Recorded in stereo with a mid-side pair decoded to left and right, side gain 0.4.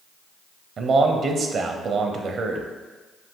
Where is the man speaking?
60° right, 0.7 m.